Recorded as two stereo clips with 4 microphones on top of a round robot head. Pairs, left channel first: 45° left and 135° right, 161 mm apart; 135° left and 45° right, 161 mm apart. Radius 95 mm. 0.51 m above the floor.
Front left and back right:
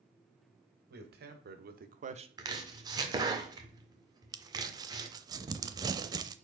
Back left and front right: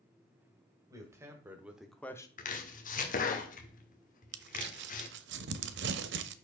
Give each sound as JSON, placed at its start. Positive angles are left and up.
{"t": 0.9, "sound": "a man speaking", "azimuth_deg": -115, "distance_m": 2.5}
{"t": 2.4, "sound": "chopping", "azimuth_deg": 160, "distance_m": 1.6}
{"t": 4.3, "sound": "crumpling", "azimuth_deg": -65, "distance_m": 0.6}